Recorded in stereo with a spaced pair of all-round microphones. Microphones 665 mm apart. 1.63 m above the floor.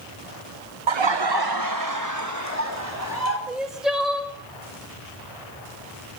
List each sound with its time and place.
0.9 s laughter: 50° right (ahead or behind), 0.7 m; by 3.4 s 20° right (ahead or behind), 4.5 m
3.5 s crying: centre (ahead or behind), 1.9 m